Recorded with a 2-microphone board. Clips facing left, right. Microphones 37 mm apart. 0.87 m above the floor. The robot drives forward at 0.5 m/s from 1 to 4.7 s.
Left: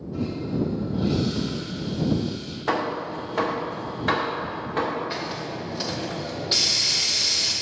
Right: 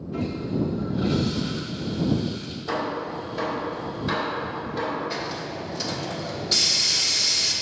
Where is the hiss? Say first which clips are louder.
Even; 15° left (ahead or behind), 1.4 m.